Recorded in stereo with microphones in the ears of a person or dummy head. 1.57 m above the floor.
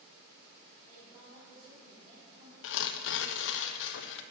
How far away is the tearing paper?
About 0.6 m.